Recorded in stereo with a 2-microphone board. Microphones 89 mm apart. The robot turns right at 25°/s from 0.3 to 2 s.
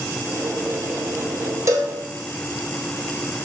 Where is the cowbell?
35° right (ahead or behind), 0.7 m; by 2.0 s 30° right (ahead or behind), 0.7 m.